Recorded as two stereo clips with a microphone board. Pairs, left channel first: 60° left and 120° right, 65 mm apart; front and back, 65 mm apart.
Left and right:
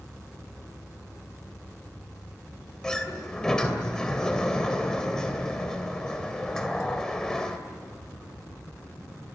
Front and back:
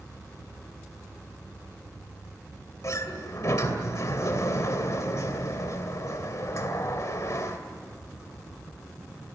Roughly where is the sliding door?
Ahead.